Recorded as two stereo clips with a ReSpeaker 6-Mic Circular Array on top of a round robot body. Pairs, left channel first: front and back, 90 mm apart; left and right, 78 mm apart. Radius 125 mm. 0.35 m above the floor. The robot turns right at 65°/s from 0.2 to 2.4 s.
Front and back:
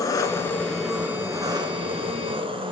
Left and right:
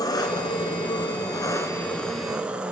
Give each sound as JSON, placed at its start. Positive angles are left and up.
{"t": 0.0, "sound": "an engine running", "azimuth_deg": 50, "distance_m": 1.4}